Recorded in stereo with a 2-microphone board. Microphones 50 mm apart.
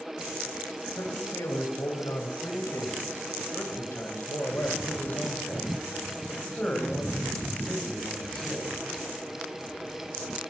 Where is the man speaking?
85° left, 7.5 m; by 8.7 s 5° left (ahead or behind), 9 m.